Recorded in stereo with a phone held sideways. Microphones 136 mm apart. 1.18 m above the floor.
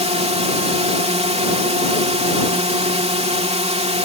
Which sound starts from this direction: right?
A drone, at 0.0 s.